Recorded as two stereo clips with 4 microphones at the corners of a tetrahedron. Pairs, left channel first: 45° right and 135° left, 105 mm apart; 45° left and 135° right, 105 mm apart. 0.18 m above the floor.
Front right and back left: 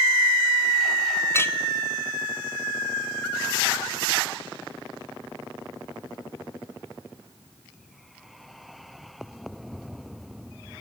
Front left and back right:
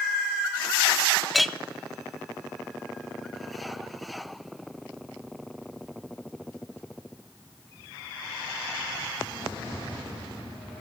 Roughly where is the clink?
Ahead right.